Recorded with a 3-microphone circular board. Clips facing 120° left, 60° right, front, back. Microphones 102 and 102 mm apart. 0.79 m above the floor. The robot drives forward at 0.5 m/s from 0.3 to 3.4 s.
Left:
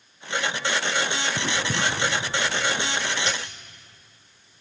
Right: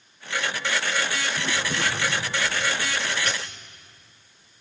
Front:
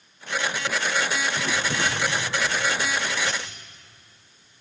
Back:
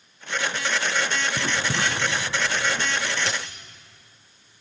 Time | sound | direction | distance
1.4 | writing | 140° left | 4.5 m
3.3 | a dropped coin | 175° right | 3.5 m